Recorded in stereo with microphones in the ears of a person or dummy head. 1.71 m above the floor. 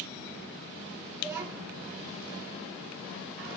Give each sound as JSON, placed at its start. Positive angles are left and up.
{"t": 1.2, "sound": "a child speaking", "side_deg": -10, "distance_m": 1.6}